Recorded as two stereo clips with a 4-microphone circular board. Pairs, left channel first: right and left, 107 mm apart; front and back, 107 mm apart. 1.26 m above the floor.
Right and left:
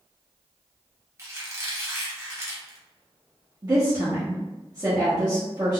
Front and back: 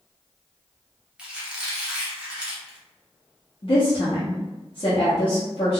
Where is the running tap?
I don't hear a running tap.